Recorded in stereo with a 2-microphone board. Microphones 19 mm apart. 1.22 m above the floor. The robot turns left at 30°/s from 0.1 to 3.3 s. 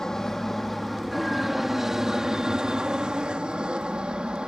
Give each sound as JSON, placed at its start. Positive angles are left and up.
{"t": 0.0, "sound": "an aircraft", "azimuth_deg": 30}